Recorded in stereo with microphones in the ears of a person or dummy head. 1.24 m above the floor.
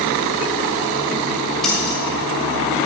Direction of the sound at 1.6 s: Centre (ahead or behind).